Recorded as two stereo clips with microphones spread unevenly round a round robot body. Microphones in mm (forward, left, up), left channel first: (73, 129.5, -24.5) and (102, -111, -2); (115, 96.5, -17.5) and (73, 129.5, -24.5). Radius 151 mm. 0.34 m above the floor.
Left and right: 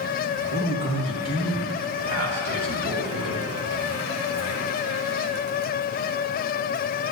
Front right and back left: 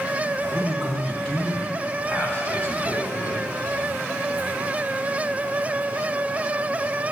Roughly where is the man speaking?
Behind right.